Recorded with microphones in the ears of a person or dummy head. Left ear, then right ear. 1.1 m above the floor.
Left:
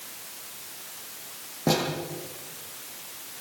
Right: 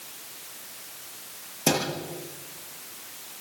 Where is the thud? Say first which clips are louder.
Even; 70° right (ahead or behind), 9.5 m.